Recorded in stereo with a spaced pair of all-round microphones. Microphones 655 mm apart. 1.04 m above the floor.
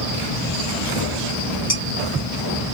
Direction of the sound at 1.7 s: 75° left (ahead or behind).